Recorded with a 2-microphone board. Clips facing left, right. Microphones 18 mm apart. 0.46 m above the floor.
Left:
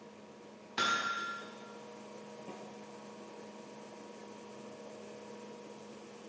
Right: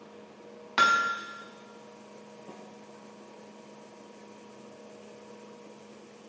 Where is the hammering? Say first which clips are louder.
Right 9 dB; 55° right (ahead or behind), 0.7 m.